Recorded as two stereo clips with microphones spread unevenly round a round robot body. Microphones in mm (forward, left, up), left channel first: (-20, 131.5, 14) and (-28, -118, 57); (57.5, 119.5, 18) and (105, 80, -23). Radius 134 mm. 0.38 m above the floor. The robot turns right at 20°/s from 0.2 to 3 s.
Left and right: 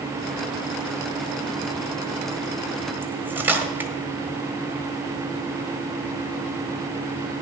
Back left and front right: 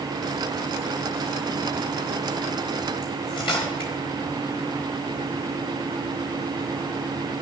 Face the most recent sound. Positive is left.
turn(degrees=180)